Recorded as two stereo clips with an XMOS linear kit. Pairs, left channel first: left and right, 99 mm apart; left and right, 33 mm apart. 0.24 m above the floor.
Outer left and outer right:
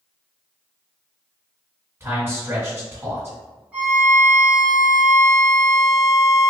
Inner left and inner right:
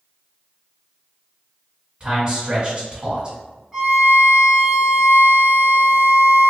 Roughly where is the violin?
Centre.